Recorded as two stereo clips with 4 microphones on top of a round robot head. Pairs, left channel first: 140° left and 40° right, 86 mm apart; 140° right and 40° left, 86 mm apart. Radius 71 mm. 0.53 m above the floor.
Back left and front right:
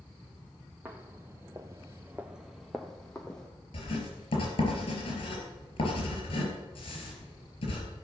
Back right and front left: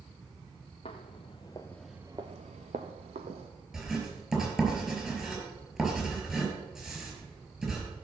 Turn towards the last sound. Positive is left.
turn(degrees=125)